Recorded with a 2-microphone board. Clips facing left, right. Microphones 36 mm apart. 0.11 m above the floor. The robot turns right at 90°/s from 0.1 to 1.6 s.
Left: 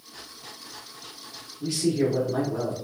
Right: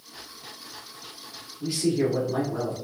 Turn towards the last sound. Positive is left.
turn(degrees=-5)  # may be behind; listen again after turning